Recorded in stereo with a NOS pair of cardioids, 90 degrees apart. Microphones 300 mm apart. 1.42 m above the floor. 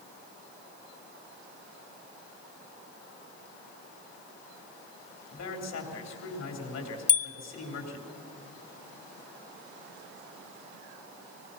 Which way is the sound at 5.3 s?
60° left.